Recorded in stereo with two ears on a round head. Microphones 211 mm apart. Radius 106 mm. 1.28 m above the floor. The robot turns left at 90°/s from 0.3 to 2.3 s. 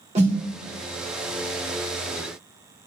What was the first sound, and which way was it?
A snare drum, 30° right (ahead or behind).